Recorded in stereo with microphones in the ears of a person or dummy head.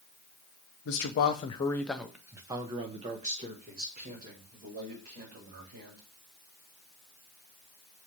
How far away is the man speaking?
About 0.6 m.